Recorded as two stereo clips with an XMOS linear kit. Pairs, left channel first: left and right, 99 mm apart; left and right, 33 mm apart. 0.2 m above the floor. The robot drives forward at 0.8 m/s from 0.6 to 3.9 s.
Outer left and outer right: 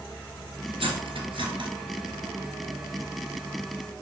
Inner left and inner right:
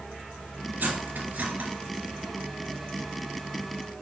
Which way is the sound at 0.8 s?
70° right (ahead or behind).